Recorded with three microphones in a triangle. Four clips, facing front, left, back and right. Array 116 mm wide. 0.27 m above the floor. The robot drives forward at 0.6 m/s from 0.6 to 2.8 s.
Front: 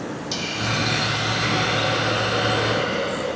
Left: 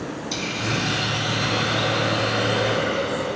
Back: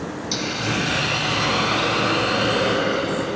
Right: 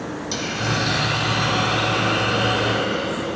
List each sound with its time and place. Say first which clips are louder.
0.3 s a hiss: right 3 dB, back 3 dB; 115° right, 0.6 m; by 3.4 s 165° right, 1.6 m